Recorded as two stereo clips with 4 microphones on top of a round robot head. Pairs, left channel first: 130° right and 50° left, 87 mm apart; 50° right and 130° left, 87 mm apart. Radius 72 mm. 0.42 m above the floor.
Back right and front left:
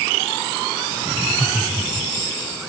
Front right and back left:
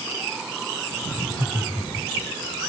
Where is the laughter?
20° right, 4.5 m; by 2.3 s 10° right, 3.5 m.